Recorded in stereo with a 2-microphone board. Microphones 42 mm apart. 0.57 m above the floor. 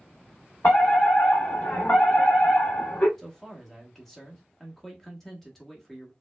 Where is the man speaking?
5° left (ahead or behind), 1.2 m.